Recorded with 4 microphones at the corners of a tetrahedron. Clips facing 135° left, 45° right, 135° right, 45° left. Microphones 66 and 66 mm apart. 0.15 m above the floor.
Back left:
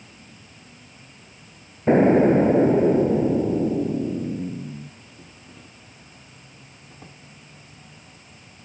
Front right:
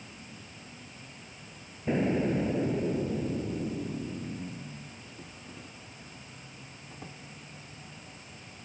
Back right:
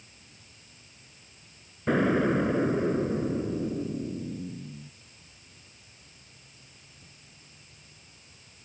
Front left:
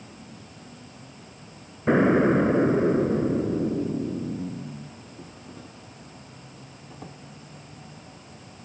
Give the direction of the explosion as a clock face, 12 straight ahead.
8 o'clock.